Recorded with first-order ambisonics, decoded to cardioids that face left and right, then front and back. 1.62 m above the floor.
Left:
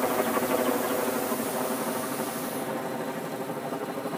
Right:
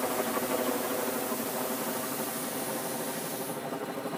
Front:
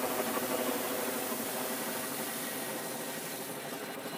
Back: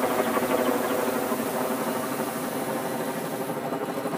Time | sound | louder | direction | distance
0.0 | a helicopter | left 5 dB, back 9 dB | 150° left | ?